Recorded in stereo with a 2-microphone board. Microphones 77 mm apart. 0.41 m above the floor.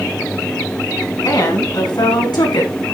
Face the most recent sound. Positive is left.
turn(degrees=75)  # may be behind; listen again after turning